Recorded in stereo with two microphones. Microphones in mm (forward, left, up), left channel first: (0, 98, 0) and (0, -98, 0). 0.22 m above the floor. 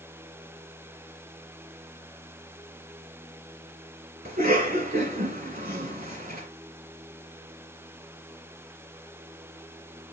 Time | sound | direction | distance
4.2 | a cough | 40° right (ahead or behind) | 2.0 m